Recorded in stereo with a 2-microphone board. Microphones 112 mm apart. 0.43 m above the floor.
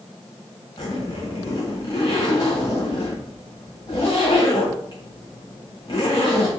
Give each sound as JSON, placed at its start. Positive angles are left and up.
{"t": 0.8, "sound": "a zipper", "side_deg": 40, "distance_m": 1.8}